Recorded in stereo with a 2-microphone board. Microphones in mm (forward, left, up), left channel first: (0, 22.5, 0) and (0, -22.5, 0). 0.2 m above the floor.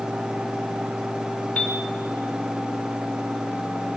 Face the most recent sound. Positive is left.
turn(degrees=30)  # may be behind; listen again after turning